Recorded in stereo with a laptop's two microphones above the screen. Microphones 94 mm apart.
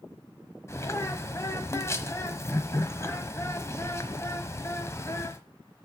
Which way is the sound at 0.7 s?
30° left (ahead or behind).